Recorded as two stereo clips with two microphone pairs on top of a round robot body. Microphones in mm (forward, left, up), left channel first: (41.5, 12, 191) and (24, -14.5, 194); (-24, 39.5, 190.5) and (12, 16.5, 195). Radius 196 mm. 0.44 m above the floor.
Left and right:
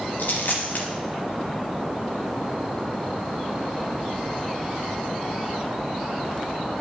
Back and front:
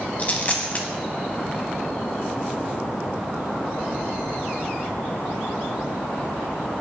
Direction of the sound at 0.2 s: 85° left.